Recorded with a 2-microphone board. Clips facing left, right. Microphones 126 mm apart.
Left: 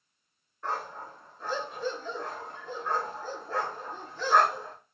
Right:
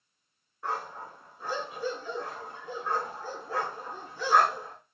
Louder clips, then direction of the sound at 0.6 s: Even; 10° right (ahead or behind).